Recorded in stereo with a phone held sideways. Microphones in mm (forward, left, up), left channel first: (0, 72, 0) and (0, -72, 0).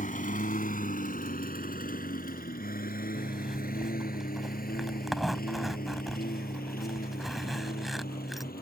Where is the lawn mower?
65° left (ahead or behind); by 8.6 s 85° left.